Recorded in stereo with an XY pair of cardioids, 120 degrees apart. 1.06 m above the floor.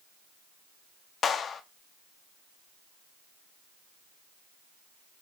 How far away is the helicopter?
No helicopter in this recording.